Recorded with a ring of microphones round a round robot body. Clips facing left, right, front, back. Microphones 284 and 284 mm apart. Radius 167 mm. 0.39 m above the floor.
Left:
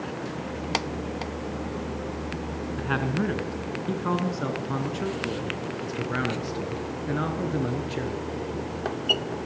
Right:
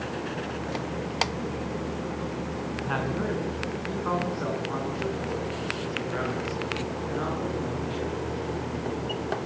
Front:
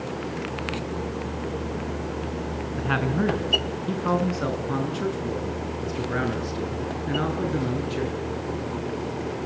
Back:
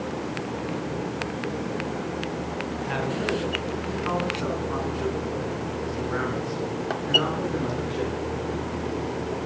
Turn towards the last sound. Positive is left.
turn(degrees=60)